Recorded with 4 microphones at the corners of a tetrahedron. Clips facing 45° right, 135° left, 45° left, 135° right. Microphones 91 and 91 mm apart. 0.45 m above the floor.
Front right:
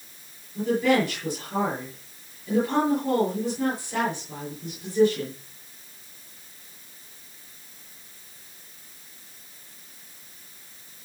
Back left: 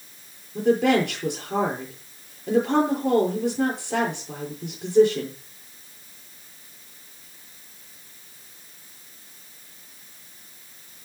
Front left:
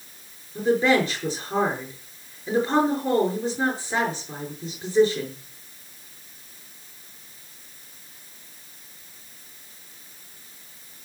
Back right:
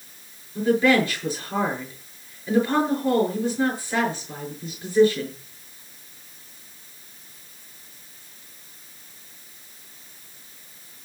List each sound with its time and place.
0.6 s a woman speaking: 120° left, 7 m